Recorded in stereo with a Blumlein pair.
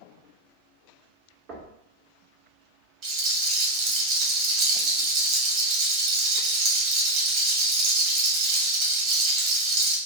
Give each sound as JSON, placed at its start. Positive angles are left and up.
{"t": 1.5, "sound": "knocking", "azimuth_deg": -25, "distance_m": 0.7}
{"t": 3.0, "sound": "a rattle", "azimuth_deg": -35, "distance_m": 0.9}